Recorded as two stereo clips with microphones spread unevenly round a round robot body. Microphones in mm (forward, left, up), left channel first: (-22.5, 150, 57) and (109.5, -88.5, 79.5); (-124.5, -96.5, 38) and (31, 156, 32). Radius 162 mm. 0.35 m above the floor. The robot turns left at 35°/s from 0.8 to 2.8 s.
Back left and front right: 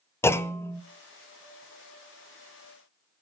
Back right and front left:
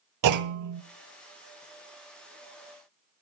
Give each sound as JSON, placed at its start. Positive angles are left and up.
{"t": 0.2, "sound": "a clunk", "azimuth_deg": 40, "distance_m": 0.7}